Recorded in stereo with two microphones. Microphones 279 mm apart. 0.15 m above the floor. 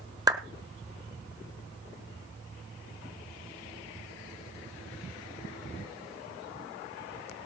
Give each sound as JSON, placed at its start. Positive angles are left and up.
{"t": 0.3, "sound": "a clap", "side_deg": -15, "distance_m": 1.5}